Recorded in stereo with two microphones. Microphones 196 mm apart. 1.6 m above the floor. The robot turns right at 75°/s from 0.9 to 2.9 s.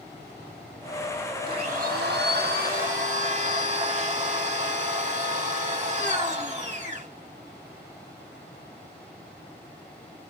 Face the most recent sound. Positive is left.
turn(degrees=-45)